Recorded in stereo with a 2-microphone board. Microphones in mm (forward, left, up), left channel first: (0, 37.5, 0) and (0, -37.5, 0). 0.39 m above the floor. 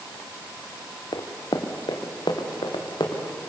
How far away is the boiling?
I don't hear boiling.